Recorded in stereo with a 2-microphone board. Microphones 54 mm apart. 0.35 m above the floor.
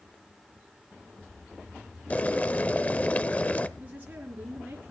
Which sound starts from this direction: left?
Boiling, at 2.1 s.